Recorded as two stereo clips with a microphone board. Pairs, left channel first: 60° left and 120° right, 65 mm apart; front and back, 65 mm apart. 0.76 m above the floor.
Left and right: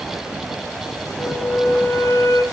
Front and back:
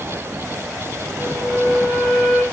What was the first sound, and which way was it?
A flute, 100° left.